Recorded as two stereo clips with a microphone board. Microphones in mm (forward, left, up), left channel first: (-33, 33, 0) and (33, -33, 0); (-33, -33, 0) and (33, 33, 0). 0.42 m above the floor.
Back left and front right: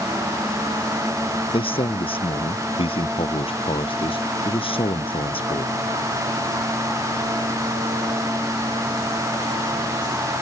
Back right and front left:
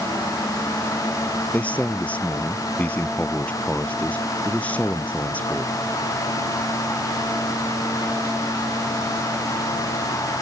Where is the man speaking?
150° left.